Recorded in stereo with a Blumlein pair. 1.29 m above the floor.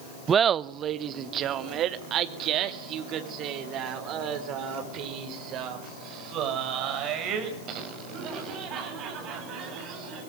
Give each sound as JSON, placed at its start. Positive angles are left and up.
{"t": 0.3, "sound": "laughter", "azimuth_deg": -20, "distance_m": 0.5}